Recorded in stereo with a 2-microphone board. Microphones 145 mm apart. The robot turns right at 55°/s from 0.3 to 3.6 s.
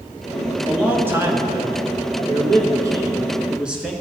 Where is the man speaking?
175° right, 1.2 m; by 3.9 s 10° right, 1.2 m.